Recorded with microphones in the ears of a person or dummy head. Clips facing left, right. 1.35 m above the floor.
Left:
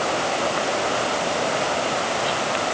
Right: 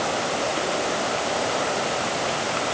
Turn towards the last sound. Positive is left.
No sound to turn to.